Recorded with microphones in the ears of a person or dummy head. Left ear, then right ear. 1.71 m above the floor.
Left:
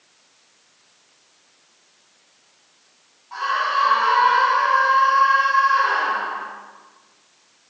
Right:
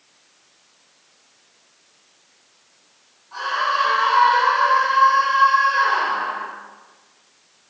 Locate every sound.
3.3 s a scream: 65° left (ahead or behind), 5 m; by 6.5 s 70° left (ahead or behind), 6.5 m